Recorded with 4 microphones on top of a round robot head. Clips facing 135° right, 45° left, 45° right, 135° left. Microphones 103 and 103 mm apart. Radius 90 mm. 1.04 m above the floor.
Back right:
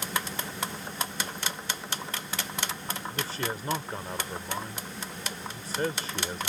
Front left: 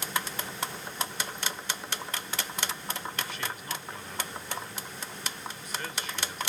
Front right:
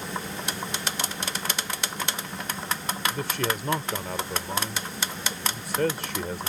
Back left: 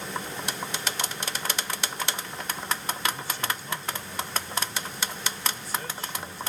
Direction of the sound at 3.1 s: 75° right.